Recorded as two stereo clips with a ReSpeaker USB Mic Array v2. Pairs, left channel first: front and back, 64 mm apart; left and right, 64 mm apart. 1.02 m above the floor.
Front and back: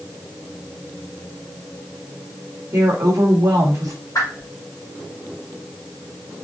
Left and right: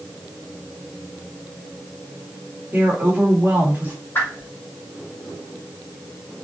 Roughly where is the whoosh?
Ahead left.